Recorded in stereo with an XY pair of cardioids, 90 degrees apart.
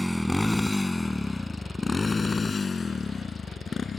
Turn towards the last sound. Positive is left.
turn(degrees=50)